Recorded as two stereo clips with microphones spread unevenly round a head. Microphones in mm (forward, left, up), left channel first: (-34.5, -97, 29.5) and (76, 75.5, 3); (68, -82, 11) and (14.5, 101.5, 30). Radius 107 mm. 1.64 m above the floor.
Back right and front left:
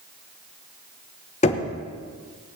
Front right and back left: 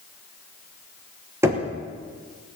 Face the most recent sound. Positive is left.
turn(degrees=180)